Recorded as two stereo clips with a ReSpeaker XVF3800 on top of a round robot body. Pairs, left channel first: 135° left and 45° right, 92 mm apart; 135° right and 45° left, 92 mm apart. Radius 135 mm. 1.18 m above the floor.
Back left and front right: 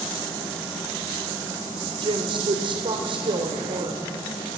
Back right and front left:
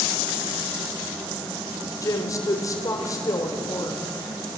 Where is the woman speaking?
80° right, 3.5 m.